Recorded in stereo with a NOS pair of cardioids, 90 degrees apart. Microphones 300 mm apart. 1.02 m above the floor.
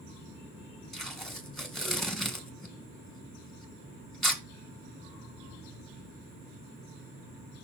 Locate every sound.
0.9 s tape being pulled: straight ahead, 2.5 m